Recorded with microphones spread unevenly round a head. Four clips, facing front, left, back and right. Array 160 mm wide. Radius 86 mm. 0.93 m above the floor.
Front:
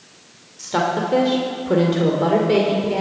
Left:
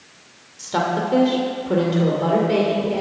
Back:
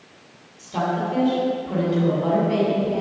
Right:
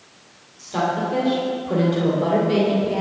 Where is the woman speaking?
30° left, 2.5 m; by 3.0 s straight ahead, 2.5 m.